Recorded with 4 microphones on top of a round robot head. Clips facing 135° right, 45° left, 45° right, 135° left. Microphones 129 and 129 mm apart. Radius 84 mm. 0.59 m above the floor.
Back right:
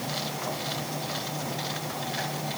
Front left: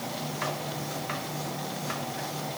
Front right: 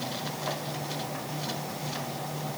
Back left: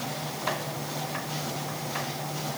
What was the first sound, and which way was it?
Only background noise.